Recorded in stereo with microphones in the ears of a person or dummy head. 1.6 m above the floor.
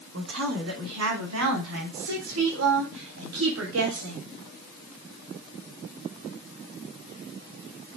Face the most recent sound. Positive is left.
turn(degrees=-80)